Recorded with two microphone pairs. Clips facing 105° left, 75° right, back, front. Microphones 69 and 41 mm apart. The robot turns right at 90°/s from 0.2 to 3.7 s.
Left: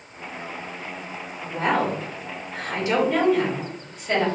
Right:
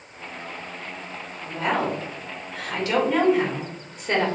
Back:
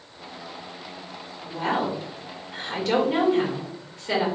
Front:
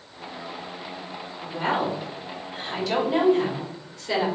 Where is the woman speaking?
40° left, 2 m; by 4.3 s 110° right, 2 m.